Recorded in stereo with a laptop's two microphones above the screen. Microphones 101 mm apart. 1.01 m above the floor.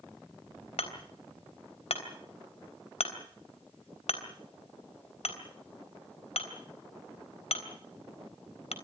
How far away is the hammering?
About 3.5 m.